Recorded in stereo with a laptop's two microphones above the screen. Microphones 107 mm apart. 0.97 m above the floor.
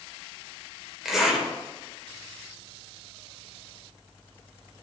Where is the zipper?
5° right (ahead or behind), 2 m.